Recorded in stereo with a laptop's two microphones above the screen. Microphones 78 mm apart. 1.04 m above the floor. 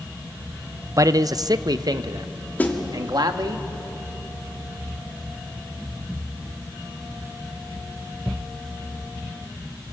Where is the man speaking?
40° right (ahead or behind), 0.6 m; by 3.6 s 60° right (ahead or behind), 1.9 m.